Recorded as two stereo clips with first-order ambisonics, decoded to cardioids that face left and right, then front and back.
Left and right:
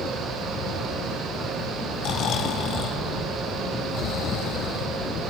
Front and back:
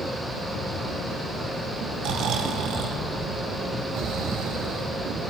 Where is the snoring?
140° left, 1.0 m.